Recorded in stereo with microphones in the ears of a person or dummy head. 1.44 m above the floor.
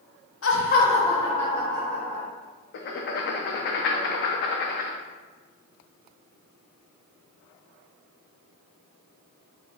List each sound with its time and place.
0.4 s laughter: 65° left (ahead or behind), 0.7 m; by 2.3 s 5° left (ahead or behind), 2.5 m
2.7 s writing: 50° left (ahead or behind), 0.5 m